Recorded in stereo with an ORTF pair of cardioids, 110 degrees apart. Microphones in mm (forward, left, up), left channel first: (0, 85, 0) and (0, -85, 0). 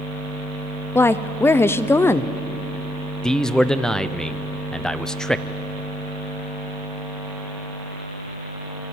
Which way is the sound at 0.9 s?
15° left.